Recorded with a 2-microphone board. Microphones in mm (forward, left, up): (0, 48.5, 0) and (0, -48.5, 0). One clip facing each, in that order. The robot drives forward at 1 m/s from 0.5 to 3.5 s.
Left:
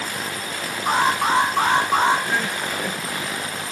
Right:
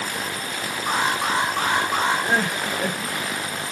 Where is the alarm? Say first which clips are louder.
Left 4 dB; 20° left (ahead or behind), 10 m; by 2.3 s 25° left (ahead or behind), 8.5 m.